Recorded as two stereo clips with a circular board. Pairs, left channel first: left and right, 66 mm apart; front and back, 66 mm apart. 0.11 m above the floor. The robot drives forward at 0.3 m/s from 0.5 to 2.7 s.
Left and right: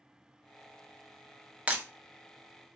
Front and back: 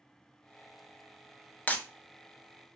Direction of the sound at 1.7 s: 40° right.